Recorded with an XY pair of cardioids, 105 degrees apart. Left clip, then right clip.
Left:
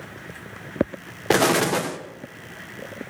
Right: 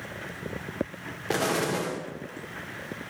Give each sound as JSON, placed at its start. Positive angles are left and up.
{"t": 1.3, "sound": "an explosion", "azimuth_deg": 60, "distance_m": 1.3}